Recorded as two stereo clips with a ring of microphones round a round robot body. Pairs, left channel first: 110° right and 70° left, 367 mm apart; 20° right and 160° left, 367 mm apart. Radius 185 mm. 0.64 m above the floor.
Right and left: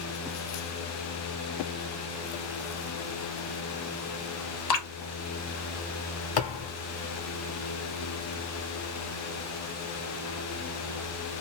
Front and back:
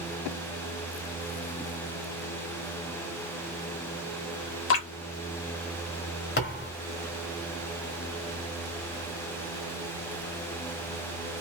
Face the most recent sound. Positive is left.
turn(degrees=-85)